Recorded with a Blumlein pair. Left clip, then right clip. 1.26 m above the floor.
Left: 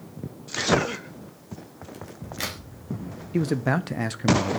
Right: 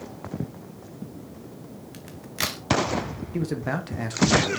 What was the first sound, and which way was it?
A crack, 15° right.